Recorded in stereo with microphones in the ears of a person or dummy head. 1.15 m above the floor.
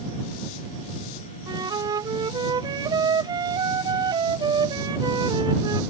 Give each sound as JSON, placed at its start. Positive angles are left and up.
{"t": 1.5, "sound": "a flute", "side_deg": -20}